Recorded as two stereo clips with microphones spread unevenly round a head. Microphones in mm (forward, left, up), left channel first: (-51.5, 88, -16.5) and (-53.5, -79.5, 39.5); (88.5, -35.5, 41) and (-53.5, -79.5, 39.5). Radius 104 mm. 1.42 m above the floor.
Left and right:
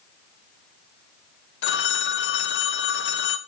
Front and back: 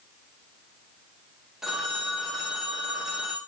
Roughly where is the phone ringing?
Left.